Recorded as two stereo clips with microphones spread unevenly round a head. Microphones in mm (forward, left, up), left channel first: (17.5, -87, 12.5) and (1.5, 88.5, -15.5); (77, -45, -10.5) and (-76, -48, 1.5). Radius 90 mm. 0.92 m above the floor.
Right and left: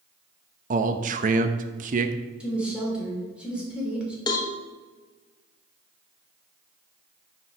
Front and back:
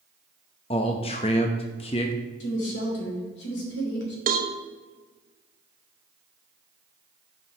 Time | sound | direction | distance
0.7 | a man speaking | 55° left | 0.6 m
2.4 | a woman speaking | 10° left | 2.5 m
4.3 | a cowbell | 155° right | 1.1 m